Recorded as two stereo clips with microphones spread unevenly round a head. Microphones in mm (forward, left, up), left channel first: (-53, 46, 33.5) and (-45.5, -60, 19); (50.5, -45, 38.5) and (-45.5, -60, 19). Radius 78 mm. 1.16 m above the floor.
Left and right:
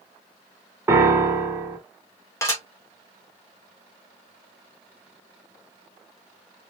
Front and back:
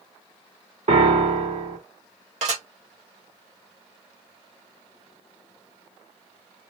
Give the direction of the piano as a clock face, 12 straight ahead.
5 o'clock.